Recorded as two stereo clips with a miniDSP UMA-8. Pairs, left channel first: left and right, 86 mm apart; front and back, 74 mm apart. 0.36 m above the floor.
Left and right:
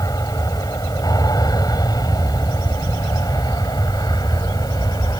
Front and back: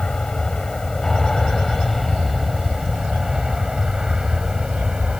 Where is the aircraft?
80° left; by 5.2 s 105° left.